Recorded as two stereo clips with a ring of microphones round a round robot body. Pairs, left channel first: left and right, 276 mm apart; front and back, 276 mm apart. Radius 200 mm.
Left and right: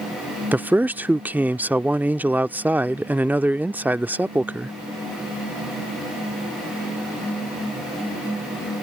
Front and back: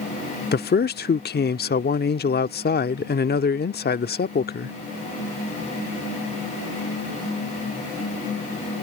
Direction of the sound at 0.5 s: 10° right.